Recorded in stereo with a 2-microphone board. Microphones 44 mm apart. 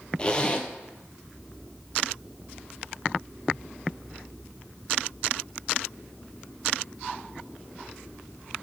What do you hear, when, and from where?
0.2 s a zipper: 20° left (ahead or behind), 0.7 m